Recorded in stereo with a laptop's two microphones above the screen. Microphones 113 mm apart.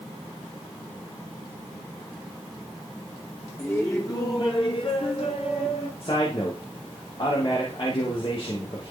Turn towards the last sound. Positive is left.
turn(degrees=50)  # may be behind; listen again after turning